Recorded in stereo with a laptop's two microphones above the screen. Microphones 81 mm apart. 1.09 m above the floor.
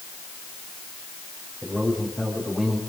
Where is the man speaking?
5° left (ahead or behind), 6.5 m.